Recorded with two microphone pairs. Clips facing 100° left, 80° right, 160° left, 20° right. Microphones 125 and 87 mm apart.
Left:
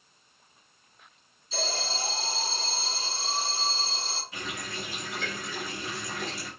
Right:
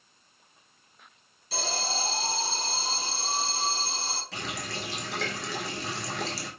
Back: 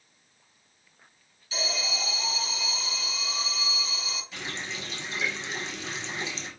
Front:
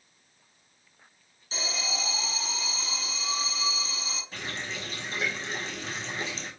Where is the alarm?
75° right, 5 m.